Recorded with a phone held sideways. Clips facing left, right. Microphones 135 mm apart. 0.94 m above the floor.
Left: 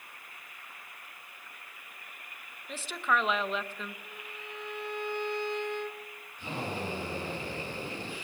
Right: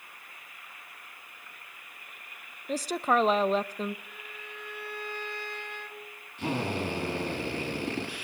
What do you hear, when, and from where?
2.7 s a woman speaking: 40° right (ahead or behind), 0.7 m
4.0 s a violin: 20° left (ahead or behind), 1.7 m
6.4 s a drill: 80° right, 10 m